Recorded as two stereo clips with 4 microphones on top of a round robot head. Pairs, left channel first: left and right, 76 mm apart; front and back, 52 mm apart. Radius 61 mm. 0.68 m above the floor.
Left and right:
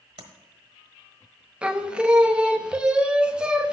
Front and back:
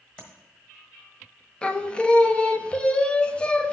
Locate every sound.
0.2 s tapping: 75° right, 1.2 m
1.6 s singing: 35° right, 0.6 m